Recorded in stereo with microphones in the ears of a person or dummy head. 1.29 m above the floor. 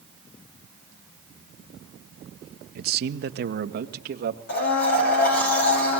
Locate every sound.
2.8 s a man speaking: 50° right (ahead or behind), 0.8 m
4.5 s a blender: 60° left (ahead or behind), 7 m